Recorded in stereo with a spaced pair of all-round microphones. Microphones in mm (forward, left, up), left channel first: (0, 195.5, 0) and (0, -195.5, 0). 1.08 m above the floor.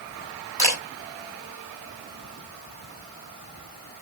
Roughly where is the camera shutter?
Right.